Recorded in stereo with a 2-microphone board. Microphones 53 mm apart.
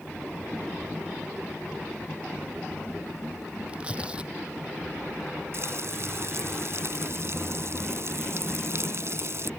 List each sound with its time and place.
3.7 s tearing paper: 20° right (ahead or behind)
5.5 s frying: 55° right (ahead or behind)